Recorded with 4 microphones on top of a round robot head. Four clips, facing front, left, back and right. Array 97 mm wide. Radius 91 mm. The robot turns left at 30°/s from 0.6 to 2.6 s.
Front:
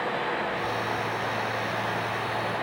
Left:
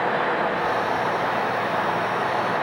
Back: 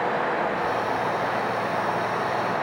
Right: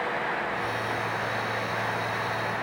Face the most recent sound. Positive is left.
No sound to turn to.